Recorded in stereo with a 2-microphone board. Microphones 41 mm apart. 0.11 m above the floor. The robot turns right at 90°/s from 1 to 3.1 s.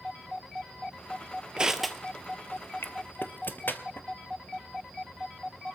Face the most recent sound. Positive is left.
turn(degrees=55)  # may be behind; listen again after turning